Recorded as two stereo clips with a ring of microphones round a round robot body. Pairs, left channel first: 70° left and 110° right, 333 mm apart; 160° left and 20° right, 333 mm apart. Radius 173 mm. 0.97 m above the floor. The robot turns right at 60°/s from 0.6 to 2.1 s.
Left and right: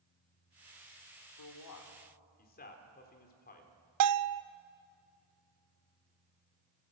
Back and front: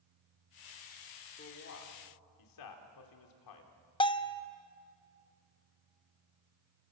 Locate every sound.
1.4 s a man speaking: 90° left, 3 m; by 3.7 s 130° left, 3 m
4.0 s a bell: 130° right, 0.6 m